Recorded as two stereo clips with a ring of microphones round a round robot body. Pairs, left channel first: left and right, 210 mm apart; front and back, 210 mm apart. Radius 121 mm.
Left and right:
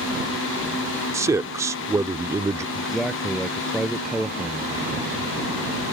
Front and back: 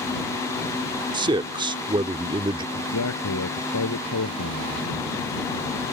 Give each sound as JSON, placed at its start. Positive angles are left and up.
{"t": 1.1, "sound": "a man speaking", "azimuth_deg": -145}
{"t": 2.8, "sound": "a man speaking", "azimuth_deg": 0}